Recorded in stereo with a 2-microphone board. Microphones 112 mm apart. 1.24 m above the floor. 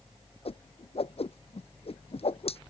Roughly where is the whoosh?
Left.